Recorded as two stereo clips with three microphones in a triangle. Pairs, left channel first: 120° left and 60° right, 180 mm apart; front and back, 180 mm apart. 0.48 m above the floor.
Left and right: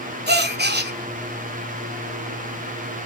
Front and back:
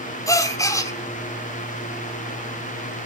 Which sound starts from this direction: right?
A gasp, at 0.3 s.